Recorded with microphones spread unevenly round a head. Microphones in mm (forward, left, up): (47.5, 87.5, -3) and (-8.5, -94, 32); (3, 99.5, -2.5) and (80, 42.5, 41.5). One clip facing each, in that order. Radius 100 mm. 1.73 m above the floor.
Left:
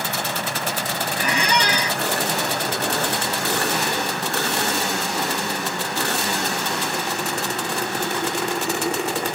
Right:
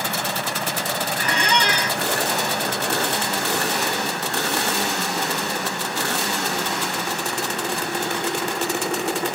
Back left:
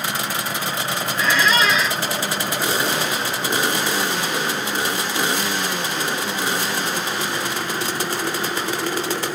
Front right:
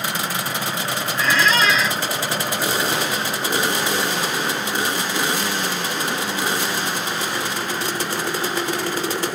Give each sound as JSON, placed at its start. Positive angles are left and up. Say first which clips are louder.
{"t": 1.2, "sound": "a squeak", "louder": "left 2 dB, even", "azimuth_deg": -20, "distance_m": 0.6}